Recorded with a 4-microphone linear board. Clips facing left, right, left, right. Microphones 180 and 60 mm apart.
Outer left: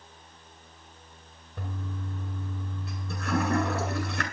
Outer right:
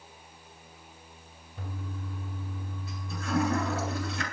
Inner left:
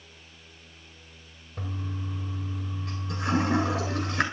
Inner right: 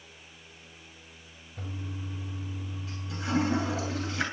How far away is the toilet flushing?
About 8.5 m.